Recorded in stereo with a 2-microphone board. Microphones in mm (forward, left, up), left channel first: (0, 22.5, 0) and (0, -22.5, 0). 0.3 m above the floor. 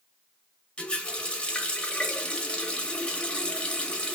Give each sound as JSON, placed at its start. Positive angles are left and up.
{"t": 0.8, "sound": "a running tap", "side_deg": 25, "distance_m": 0.7}